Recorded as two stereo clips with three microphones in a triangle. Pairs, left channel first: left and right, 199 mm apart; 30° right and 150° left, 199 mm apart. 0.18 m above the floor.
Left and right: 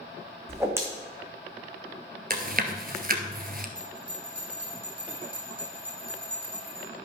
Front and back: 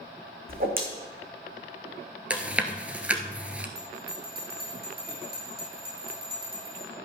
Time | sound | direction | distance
0.5 | a whoosh | 165° right | 2 m
2.3 | chewing | 125° right | 1.2 m
3.8 | a bell | 175° right | 4.5 m